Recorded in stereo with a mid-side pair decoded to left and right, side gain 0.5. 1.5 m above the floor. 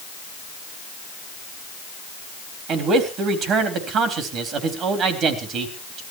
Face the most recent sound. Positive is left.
turn(degrees=-60)